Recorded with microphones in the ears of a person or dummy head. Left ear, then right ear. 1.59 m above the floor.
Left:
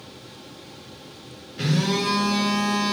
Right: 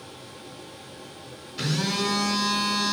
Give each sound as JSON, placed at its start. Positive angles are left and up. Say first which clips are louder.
{"t": 1.6, "sound": "a phone buzzing", "louder": "left 2 dB", "side_deg": -60, "distance_m": 4.0}